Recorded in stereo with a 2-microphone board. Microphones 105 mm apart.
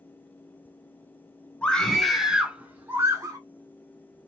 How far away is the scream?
About 1.1 m.